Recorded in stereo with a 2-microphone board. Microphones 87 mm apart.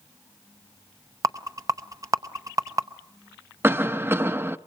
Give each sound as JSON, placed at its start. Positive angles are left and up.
{"t": 1.2, "sound": "a rattle", "side_deg": -40, "distance_m": 0.8}
{"t": 3.6, "sound": "a cough", "side_deg": -25, "distance_m": 0.6}